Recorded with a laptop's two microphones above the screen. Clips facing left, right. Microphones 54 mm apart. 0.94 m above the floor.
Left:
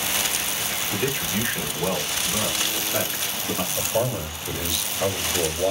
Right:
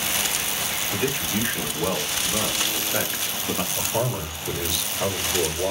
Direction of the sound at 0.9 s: 20° right (ahead or behind).